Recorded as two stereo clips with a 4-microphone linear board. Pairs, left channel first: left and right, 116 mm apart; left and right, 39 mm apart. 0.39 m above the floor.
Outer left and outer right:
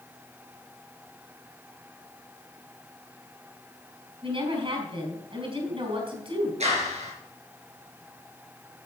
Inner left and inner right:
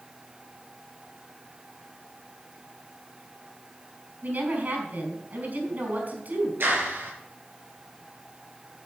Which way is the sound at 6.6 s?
70° right (ahead or behind).